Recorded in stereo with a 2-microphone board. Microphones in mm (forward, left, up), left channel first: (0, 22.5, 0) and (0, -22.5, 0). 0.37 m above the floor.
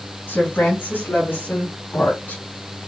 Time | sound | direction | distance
0.3 | a woman speaking | 65° left (ahead or behind) | 4 m